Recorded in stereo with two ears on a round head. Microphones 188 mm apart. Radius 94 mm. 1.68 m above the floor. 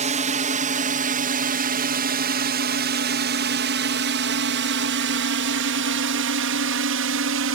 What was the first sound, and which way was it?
A drone, 35° right (ahead or behind).